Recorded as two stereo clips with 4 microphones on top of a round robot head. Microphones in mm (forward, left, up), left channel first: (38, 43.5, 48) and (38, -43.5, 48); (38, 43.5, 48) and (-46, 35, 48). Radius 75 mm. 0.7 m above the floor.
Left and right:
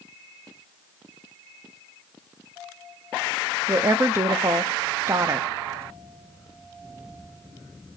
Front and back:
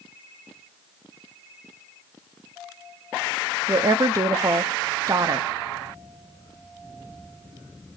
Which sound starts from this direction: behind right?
A woman speaking, at 3.7 s.